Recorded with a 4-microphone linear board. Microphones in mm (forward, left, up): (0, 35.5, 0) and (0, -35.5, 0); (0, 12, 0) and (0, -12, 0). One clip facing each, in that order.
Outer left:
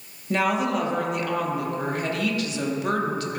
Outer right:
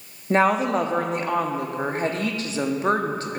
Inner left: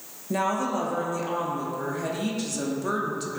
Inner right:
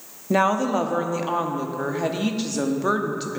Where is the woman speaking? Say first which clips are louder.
Outer right 4 dB, inner right 6 dB; 35° right (ahead or behind), 0.9 m.